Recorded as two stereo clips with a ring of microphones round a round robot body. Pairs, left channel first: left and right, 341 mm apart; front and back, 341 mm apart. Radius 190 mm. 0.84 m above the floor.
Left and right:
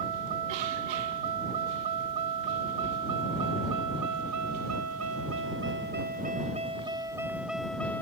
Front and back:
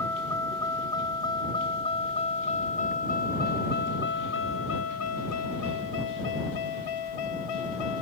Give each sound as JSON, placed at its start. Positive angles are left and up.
{"t": 0.0, "sound": "a vehicle", "azimuth_deg": -80}